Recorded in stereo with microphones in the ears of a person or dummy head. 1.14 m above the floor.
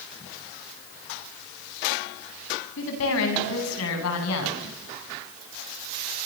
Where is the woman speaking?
75° left (ahead or behind), 9.5 m; by 4.8 s 80° left, 10 m.